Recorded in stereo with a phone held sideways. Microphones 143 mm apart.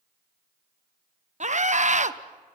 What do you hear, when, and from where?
1.4 s a scream: 55° right (ahead or behind), 1.0 m